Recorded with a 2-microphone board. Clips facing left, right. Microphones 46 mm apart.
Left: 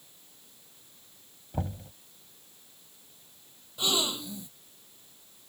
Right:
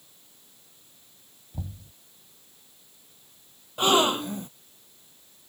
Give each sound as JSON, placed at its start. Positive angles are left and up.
{"t": 1.5, "sound": "knocking", "side_deg": 60}
{"t": 3.8, "sound": "a gasp", "side_deg": -50}